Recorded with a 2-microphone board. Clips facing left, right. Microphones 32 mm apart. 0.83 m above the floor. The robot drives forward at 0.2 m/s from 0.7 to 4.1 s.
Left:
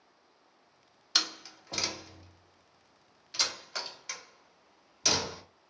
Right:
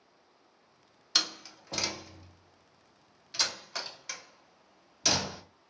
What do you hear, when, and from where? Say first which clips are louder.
1.1 s a door slam: even; 5° left (ahead or behind), 0.7 m; by 5.4 s centre (ahead or behind), 1.2 m